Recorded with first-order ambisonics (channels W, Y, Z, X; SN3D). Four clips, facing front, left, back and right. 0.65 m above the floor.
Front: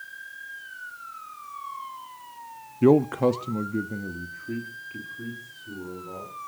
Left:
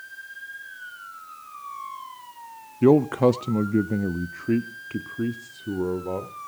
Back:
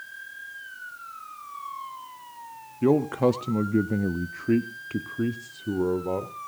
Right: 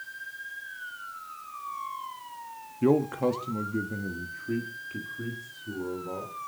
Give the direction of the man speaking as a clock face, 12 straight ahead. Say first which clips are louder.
Left 7 dB, front 2 dB; 10 o'clock.